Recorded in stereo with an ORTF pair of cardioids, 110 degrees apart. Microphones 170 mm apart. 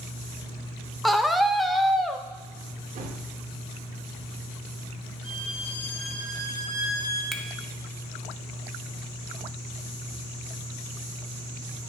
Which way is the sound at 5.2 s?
5° left.